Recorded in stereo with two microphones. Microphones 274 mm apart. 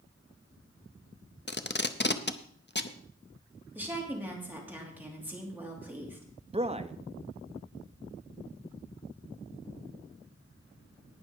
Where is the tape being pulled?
40° left (ahead or behind), 0.7 m.